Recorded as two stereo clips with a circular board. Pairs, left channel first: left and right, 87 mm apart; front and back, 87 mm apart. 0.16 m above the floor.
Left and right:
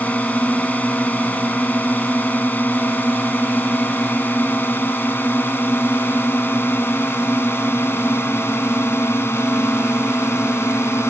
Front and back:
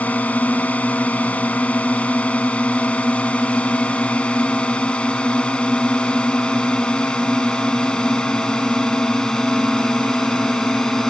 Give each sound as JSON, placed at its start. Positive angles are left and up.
{"t": 0.0, "sound": "a drone", "azimuth_deg": 45}